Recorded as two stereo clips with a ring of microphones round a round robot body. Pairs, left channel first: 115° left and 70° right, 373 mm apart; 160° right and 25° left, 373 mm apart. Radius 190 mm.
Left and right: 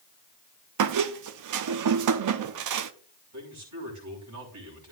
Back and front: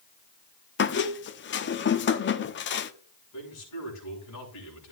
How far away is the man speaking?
About 5.5 m.